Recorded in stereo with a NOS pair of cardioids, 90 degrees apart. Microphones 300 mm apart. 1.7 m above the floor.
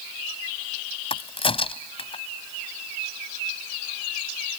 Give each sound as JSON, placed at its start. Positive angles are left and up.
{"t": 1.1, "sound": "a crack", "azimuth_deg": 20}